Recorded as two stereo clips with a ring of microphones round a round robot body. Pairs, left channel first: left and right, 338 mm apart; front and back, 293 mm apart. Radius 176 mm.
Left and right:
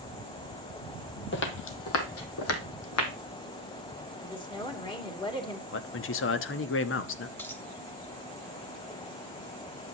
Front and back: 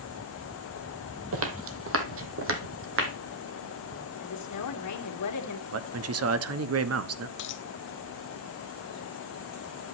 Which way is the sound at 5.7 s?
145° left.